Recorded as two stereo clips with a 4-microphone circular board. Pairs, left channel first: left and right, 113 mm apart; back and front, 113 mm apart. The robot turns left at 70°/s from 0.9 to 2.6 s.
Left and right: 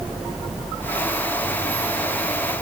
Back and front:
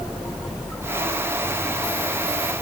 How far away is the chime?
No chime in this recording.